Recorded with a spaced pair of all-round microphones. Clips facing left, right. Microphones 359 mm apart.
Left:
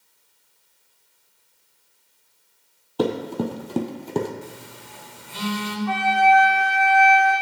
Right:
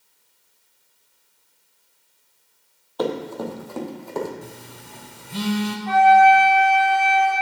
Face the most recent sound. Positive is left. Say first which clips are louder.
# right 6 dB
turn(degrees=-85)